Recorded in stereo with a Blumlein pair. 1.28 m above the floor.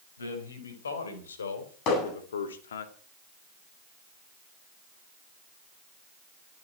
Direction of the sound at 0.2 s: 70° left.